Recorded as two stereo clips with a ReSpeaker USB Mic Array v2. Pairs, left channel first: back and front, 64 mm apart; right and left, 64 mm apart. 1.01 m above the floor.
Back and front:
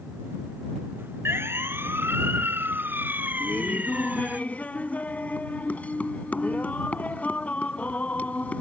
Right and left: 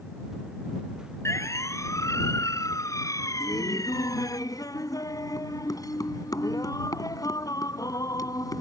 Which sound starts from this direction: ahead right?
A siren, at 1.2 s.